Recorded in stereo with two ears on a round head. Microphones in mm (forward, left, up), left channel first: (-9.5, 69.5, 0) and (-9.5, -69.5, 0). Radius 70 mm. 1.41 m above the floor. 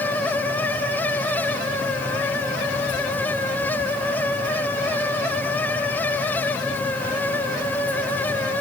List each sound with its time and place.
Only background noise.